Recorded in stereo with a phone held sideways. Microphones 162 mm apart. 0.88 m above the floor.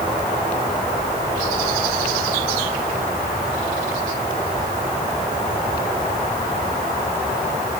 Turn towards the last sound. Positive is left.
No sound to turn to.